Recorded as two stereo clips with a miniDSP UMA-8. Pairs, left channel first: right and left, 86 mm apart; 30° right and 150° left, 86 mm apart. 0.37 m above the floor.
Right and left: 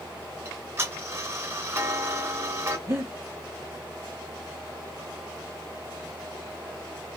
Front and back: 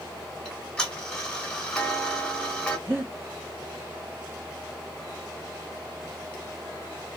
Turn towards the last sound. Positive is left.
turn(degrees=115)